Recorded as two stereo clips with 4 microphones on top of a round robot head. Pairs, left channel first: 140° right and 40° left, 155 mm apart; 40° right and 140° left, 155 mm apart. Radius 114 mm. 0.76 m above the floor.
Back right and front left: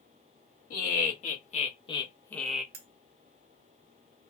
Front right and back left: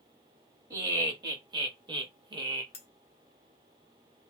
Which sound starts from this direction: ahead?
Cutlery clinking, at 2.7 s.